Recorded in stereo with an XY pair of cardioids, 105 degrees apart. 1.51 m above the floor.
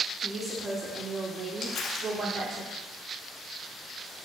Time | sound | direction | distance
0.2 | a woman speaking | 25° right | 3 m
1.6 | crumpling | 55° left | 2.5 m